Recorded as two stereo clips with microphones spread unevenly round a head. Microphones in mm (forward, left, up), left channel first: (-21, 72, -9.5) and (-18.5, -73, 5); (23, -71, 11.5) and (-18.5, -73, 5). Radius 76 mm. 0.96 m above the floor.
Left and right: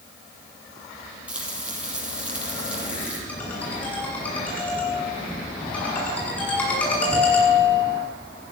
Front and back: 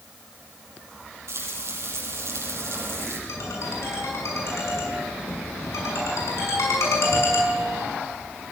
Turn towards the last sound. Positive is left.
turn(degrees=10)